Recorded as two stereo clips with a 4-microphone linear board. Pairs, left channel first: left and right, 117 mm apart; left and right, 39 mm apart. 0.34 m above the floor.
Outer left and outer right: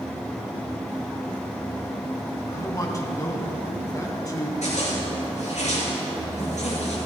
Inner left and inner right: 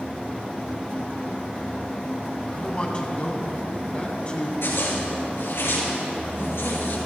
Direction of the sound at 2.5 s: 30° left (ahead or behind).